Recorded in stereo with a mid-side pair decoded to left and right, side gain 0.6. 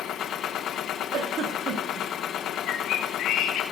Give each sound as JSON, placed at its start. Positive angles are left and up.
{"t": 0.0, "sound": "a machine running", "azimuth_deg": 55, "distance_m": 1.1}
{"t": 1.1, "sound": "a giggle", "azimuth_deg": -50, "distance_m": 2.5}
{"t": 2.7, "sound": "a bird", "azimuth_deg": 60, "distance_m": 1.8}